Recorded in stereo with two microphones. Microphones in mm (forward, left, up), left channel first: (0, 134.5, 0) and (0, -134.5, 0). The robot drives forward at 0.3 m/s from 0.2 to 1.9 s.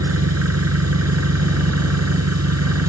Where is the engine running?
65° right (ahead or behind); by 2.9 s 70° right (ahead or behind).